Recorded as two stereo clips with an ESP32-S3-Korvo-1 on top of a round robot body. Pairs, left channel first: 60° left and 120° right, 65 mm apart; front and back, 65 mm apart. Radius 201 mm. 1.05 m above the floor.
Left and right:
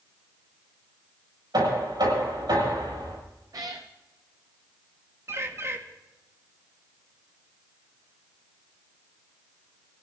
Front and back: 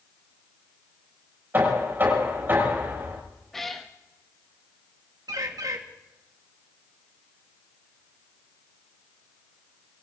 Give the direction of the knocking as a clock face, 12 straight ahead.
4 o'clock.